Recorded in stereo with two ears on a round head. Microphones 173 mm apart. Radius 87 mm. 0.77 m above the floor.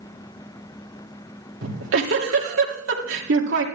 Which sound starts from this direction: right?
A giggle, at 1.6 s.